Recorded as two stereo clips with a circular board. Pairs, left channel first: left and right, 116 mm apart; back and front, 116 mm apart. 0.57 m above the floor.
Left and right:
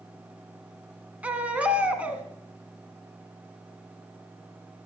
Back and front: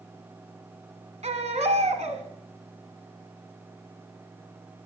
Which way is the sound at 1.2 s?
10° right.